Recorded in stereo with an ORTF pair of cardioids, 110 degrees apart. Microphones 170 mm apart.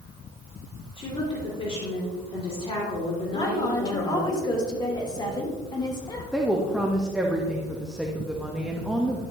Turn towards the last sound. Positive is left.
turn(degrees=-5)